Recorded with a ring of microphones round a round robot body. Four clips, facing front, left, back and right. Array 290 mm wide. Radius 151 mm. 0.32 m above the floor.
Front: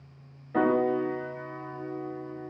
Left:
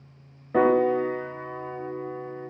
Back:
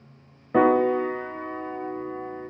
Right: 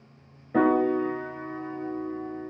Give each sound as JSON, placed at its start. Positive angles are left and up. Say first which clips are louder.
{"t": 0.5, "sound": "a piano", "louder": "left 2 dB, back 5 dB", "azimuth_deg": 160, "distance_m": 1.4}